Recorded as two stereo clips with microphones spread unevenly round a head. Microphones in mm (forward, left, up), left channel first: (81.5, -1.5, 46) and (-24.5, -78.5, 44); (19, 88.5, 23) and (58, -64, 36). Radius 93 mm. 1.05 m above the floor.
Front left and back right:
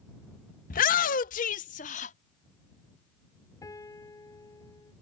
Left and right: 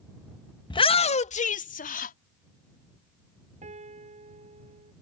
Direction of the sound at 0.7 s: 45° left.